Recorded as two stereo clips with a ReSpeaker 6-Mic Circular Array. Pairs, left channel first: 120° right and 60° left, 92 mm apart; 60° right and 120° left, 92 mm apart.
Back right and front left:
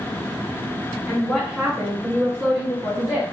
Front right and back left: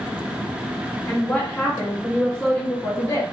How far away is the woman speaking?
About 1.2 m.